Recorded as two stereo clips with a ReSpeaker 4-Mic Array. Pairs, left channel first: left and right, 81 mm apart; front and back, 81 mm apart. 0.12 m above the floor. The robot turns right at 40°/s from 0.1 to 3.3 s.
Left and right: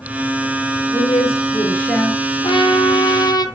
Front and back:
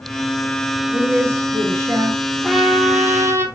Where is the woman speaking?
120° left, 1.7 m; by 2.3 s 175° left, 1.7 m.